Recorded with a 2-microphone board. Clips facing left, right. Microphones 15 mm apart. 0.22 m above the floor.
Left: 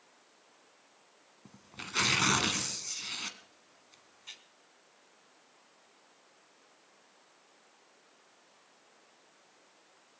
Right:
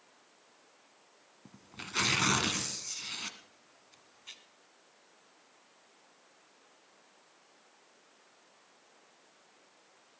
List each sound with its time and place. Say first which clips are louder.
1.4 s tearing paper: left 1 dB; 5° left (ahead or behind), 1.1 m